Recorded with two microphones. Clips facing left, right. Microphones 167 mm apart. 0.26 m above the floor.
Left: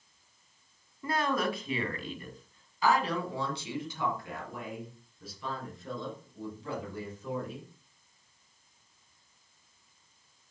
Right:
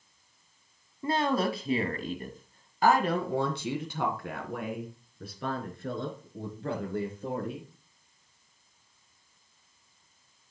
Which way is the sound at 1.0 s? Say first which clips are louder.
Right 3 dB; 25° right (ahead or behind).